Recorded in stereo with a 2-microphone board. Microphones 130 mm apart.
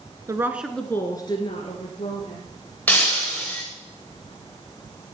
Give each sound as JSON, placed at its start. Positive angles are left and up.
{"t": 0.3, "sound": "a woman speaking", "side_deg": -25, "distance_m": 1.2}
{"t": 2.9, "sound": "breaking glass", "side_deg": 10, "distance_m": 6.0}